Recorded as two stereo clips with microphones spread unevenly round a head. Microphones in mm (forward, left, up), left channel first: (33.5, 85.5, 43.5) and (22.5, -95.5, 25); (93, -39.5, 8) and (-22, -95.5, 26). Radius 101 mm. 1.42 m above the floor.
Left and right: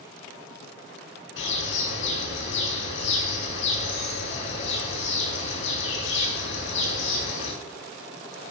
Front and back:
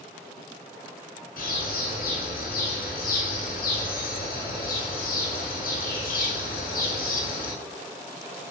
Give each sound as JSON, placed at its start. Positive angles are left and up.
{"t": 1.4, "sound": "a bird", "azimuth_deg": 65, "distance_m": 9.5}